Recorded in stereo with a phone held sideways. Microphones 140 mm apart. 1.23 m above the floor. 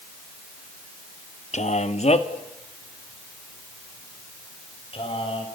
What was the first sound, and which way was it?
A man speaking, 65° left (ahead or behind).